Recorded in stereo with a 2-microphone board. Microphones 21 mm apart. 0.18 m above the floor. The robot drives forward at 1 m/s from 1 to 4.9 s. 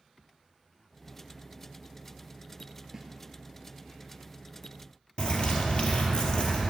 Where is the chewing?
No chewing in this recording.